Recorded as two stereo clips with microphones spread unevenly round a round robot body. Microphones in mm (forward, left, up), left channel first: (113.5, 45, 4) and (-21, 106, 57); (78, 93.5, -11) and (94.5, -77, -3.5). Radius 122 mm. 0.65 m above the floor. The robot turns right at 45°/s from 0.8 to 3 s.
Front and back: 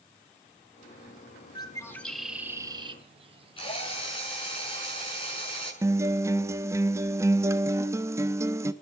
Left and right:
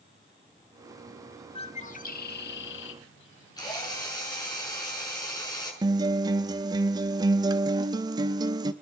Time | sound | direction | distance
1.6 | a bird | 35° left | 1.6 m
3.6 | a drill | 30° left | 6.5 m
5.8 | a guitar | 110° right | 0.7 m